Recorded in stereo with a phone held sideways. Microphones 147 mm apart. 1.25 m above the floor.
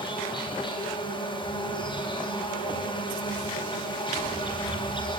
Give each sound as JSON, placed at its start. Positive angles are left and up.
{"t": 0.0, "sound": "an insect", "side_deg": 30, "distance_m": 8.5}